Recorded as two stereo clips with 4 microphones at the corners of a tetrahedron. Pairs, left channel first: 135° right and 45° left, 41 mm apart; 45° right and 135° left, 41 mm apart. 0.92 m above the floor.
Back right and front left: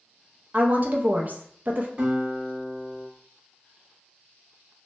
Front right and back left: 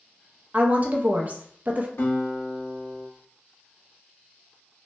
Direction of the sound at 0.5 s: 85° left.